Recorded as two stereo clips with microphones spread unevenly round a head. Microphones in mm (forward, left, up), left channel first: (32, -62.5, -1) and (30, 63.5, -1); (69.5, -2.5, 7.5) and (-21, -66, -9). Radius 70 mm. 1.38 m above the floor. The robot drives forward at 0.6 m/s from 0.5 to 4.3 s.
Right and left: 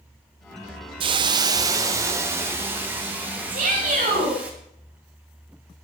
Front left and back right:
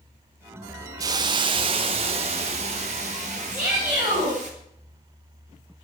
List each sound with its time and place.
1.0 s a hiss: 150° left, 0.7 m; by 4.5 s 170° left, 2.5 m
3.5 s a shout: 135° left, 6.5 m